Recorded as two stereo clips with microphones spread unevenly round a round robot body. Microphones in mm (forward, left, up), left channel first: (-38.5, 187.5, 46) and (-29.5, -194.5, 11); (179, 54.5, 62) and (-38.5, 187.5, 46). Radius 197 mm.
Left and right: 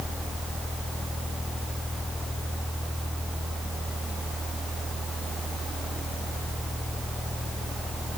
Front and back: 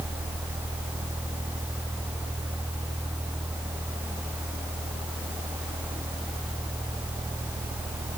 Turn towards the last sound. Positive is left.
No sound to turn to.